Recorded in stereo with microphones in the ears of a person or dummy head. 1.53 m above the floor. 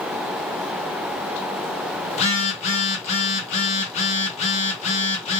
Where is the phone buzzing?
40° left (ahead or behind), 1.0 m.